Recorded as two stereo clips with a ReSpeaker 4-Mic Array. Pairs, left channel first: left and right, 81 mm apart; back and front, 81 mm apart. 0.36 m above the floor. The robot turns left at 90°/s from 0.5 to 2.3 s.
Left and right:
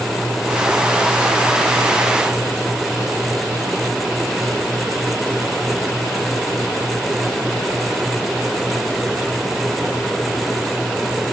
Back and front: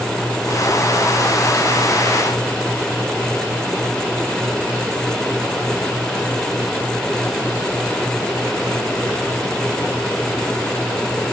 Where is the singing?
I don't hear singing.